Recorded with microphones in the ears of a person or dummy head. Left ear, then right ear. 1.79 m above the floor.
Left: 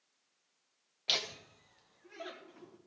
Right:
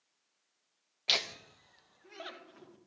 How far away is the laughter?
About 0.6 m.